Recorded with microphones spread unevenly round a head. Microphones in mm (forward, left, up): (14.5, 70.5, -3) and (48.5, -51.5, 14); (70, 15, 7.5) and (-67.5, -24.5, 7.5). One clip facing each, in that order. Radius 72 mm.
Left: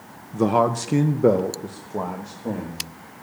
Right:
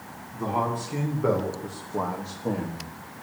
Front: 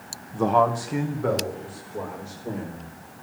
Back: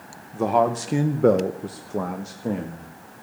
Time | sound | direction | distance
0.3 | a man speaking | 110° left | 1.0 m